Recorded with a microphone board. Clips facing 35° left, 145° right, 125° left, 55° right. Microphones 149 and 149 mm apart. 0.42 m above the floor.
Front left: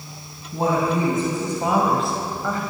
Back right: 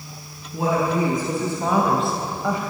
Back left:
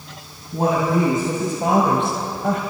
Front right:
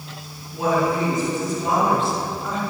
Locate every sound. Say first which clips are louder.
0.5 s a woman speaking: even, back left 2 dB; 85° left, 3.5 m; by 2.6 s 145° left, 3 m